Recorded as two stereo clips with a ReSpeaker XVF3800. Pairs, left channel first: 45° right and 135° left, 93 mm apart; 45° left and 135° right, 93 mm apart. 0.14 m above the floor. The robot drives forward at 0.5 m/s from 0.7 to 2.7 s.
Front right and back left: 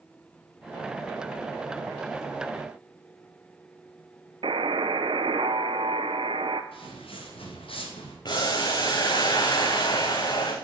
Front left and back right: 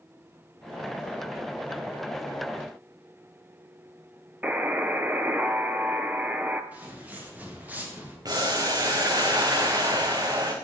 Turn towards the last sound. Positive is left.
turn(degrees=-85)